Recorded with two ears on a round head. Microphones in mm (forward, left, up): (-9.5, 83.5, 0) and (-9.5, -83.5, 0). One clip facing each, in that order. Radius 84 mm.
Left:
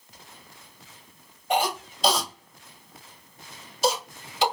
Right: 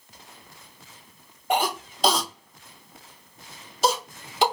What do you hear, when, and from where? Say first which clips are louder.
1.5 s a cough: even; 45° right (ahead or behind), 1.9 m